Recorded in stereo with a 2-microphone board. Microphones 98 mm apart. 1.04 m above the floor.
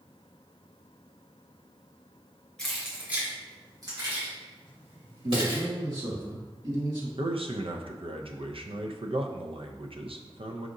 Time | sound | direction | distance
2.6 | keys jangling | 5° left (ahead or behind) | 1.5 m
5.2 | a man speaking | 50° right (ahead or behind) | 1.7 m
7.2 | a man speaking | 70° right (ahead or behind) | 0.5 m